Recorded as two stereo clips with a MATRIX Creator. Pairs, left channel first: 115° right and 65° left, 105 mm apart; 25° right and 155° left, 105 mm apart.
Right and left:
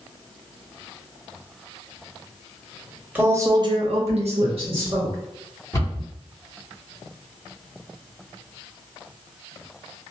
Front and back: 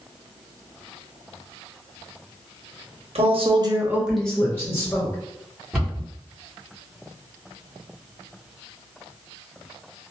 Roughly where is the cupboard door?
Behind right.